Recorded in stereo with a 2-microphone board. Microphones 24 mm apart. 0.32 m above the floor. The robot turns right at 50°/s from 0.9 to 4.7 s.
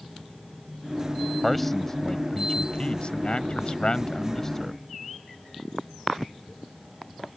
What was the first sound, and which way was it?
A man speaking, 5° left.